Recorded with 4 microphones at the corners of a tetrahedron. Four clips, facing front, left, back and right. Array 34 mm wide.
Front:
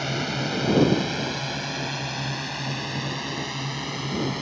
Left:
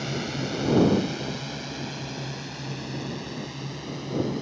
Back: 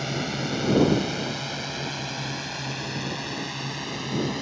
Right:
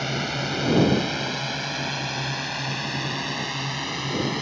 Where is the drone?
65° right; by 4.4 s 85° right.